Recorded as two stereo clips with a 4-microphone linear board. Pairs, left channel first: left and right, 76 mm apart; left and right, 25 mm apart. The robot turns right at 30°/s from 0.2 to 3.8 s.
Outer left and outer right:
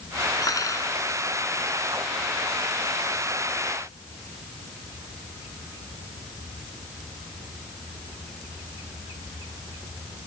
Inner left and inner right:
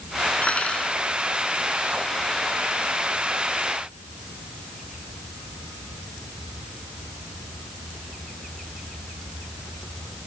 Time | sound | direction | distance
0.4 | cutlery clinking | 55° left (ahead or behind) | ?